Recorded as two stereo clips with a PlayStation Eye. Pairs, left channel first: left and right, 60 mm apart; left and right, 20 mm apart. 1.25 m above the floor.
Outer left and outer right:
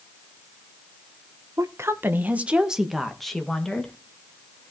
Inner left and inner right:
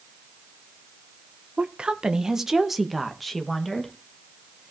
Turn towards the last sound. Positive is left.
turn(degrees=20)  # may be behind; listen again after turning